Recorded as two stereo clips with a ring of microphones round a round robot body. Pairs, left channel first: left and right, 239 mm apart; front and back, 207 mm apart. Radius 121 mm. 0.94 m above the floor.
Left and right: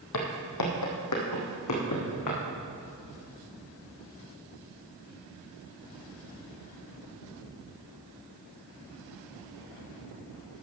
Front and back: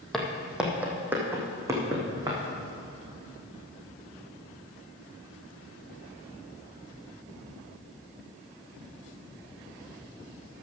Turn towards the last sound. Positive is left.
turn(degrees=110)